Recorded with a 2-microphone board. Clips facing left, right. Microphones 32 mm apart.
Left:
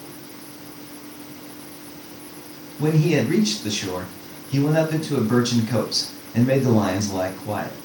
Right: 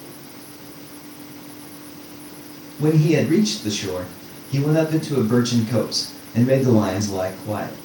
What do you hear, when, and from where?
2.8 s a man speaking: 5° left (ahead or behind), 2 m